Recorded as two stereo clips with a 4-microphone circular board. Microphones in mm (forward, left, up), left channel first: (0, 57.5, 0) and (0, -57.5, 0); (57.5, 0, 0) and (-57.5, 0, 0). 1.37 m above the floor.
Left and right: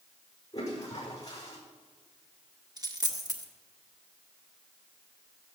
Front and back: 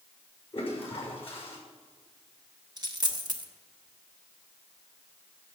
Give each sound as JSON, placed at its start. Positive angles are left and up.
{"t": 0.5, "sound": "a toilet flushing", "azimuth_deg": 35, "distance_m": 5.5}
{"t": 2.8, "sound": "a dropped coin", "azimuth_deg": -135, "distance_m": 1.2}